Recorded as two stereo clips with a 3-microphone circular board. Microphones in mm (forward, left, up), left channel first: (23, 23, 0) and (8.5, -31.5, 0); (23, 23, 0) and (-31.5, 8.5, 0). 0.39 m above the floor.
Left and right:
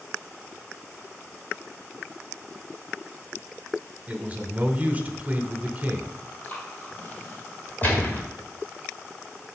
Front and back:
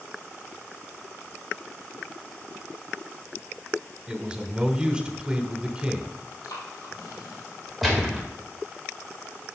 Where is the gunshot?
105° left, 1.6 m.